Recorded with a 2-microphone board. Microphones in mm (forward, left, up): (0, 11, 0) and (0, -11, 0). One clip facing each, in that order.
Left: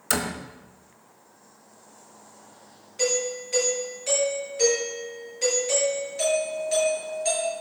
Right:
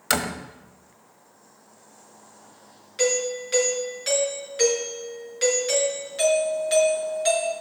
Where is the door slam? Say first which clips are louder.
Right 2 dB; 30° right (ahead or behind), 1.0 m.